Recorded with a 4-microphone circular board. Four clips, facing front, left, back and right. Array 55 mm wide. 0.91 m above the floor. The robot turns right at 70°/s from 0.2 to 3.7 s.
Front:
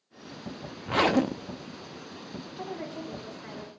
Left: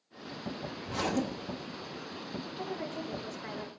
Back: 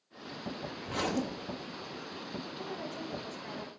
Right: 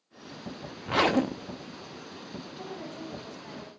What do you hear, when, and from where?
0.8 s a zipper: 60° right, 0.5 m; by 1.8 s 5° left, 0.5 m
2.6 s a woman speaking: 15° left, 2.5 m; by 3.7 s 90° left, 2.5 m